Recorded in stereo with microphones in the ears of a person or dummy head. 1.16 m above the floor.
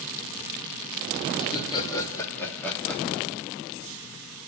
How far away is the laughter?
About 1.9 m.